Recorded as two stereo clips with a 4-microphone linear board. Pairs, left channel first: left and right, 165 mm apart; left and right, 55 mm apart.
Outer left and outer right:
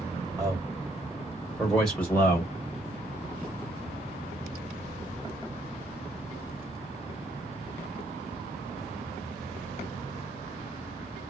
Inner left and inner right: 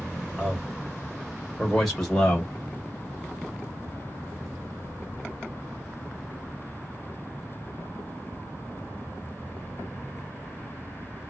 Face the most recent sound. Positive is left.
turn(degrees=15)  # may be behind; listen again after turning